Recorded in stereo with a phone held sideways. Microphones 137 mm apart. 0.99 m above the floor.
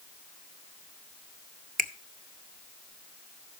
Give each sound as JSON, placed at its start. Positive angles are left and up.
{"t": 1.8, "sound": "a finger snap", "side_deg": -80, "distance_m": 0.6}